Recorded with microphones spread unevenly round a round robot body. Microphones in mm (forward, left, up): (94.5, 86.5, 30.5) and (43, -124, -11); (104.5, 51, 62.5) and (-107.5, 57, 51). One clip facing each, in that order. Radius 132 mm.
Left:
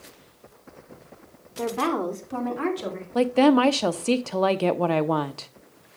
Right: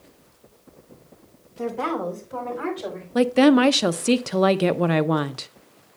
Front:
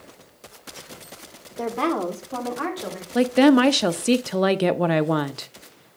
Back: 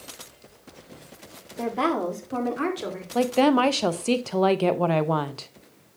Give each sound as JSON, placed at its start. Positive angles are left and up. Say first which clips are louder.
{"t": 1.6, "sound": "a woman speaking", "louder": "left 1 dB, front 1 dB", "azimuth_deg": 80, "distance_m": 2.0}
{"t": 3.1, "sound": "a woman speaking", "louder": "right 3 dB, front 5 dB", "azimuth_deg": -70, "distance_m": 0.5}